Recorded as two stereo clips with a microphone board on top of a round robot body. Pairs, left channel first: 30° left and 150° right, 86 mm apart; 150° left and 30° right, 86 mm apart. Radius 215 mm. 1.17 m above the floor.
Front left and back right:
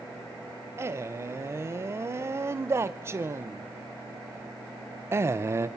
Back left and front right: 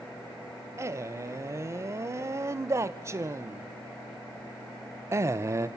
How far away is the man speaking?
About 0.8 m.